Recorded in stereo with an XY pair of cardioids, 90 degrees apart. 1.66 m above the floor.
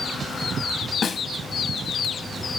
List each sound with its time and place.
1.0 s a snare drum: 50° left, 0.5 m